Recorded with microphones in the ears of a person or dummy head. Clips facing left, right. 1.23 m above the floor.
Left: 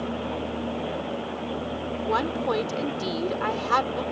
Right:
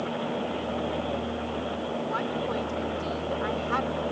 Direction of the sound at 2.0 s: 80° left.